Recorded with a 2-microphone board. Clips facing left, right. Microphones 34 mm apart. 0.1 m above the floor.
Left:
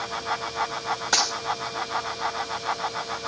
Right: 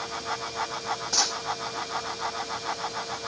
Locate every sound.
1.1 s a dropped coin: 70° left (ahead or behind), 8 m